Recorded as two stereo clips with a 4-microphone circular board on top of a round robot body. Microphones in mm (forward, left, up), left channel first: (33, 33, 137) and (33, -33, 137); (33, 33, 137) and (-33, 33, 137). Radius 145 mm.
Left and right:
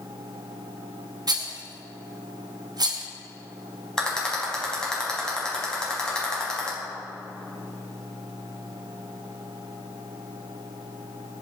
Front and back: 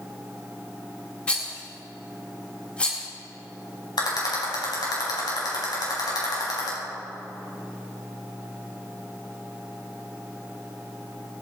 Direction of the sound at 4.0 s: 10° left.